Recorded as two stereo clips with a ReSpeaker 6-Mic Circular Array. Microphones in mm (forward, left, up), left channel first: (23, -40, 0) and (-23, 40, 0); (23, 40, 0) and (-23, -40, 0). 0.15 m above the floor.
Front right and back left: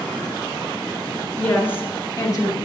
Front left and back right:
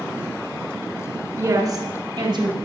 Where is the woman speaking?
125° right, 1.2 m; by 2.5 s 110° right, 1.9 m.